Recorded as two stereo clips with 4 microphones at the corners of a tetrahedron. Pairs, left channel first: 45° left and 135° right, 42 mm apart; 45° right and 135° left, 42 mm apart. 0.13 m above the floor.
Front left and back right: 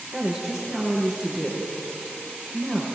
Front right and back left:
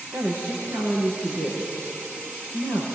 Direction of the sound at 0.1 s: 130° left.